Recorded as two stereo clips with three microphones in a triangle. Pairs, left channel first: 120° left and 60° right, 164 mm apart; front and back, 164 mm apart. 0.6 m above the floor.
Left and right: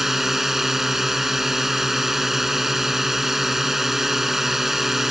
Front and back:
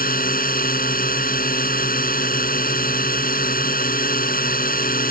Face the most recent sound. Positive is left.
turn(degrees=25)